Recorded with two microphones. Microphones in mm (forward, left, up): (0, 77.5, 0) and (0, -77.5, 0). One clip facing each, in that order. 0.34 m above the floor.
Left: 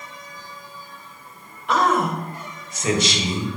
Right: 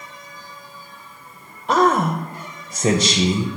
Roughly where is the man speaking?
Right.